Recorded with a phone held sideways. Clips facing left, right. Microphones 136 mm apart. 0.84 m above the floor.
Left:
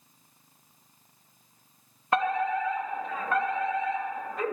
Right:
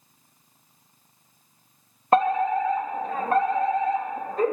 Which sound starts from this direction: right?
A fire alarm, at 2.1 s.